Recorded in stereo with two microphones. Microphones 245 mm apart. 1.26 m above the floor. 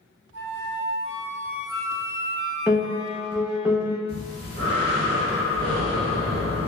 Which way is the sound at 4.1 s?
70° right (ahead or behind).